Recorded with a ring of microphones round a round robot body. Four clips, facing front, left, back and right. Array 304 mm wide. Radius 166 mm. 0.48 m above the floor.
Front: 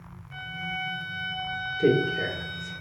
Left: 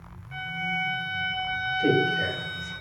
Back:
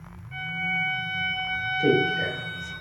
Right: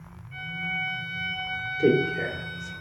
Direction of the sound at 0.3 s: 110° left.